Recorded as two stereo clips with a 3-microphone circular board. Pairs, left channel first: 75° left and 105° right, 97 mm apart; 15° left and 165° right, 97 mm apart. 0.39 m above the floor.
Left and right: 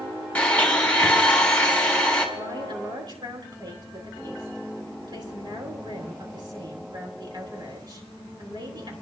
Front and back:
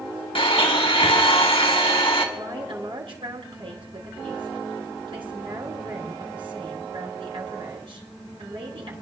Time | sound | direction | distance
0.3 | a blender | straight ahead | 2.5 m
2.4 | a woman speaking | 145° right | 4.5 m